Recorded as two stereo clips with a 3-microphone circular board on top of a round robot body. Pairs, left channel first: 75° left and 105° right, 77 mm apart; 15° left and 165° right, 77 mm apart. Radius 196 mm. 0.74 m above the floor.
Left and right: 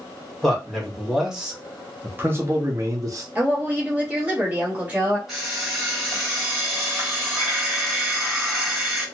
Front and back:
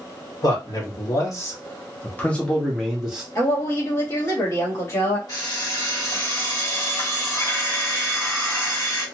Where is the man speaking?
10° right, 1.6 m; by 3.2 s 90° right, 1.1 m.